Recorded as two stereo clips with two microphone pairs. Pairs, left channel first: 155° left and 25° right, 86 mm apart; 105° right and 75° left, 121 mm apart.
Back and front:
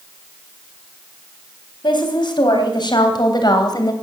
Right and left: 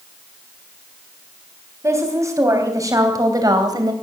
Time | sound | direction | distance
1.8 | a woman speaking | 140° left | 3.5 m